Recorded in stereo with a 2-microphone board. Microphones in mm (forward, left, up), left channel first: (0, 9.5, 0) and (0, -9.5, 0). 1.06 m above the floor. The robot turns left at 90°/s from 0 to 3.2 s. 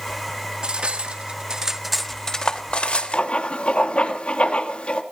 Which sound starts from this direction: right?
Cutlery clinking, at 0.6 s.